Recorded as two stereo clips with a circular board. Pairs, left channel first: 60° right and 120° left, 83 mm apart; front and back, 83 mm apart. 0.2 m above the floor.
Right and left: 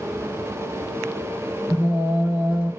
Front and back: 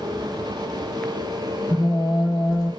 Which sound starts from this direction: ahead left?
Singing, at 1.7 s.